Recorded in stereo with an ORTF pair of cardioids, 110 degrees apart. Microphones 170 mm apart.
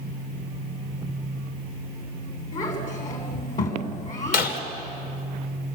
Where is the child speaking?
50° left, 9 m.